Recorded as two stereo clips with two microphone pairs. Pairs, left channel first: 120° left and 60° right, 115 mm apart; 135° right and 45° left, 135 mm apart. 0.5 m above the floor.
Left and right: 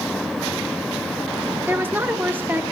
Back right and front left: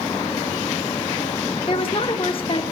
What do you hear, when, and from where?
1.7 s a woman speaking: 125° right, 1.0 m